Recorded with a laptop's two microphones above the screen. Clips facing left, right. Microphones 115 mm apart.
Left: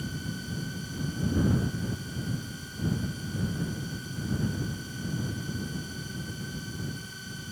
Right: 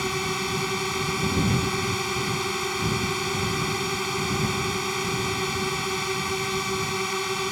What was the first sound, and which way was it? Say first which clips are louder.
A drone: right 9 dB; 85° right.